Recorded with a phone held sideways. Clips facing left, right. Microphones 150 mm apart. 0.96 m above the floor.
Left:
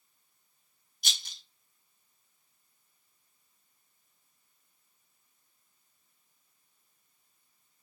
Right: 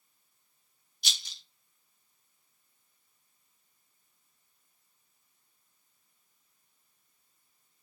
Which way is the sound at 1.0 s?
50° left (ahead or behind).